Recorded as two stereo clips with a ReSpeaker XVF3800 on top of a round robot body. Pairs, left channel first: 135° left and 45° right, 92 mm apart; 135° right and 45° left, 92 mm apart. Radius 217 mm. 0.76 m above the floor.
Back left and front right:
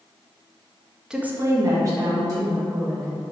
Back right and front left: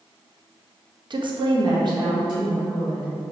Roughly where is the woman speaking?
Ahead left.